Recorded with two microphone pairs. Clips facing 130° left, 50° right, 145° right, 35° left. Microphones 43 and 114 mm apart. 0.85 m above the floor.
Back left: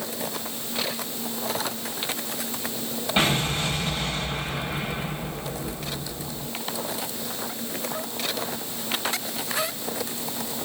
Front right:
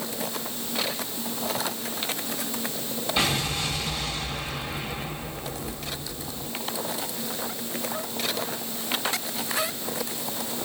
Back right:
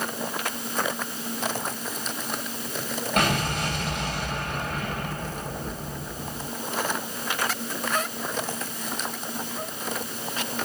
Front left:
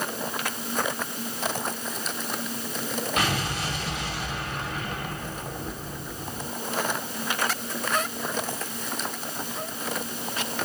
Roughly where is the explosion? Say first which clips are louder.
Back left 3 dB, back right 5 dB; behind.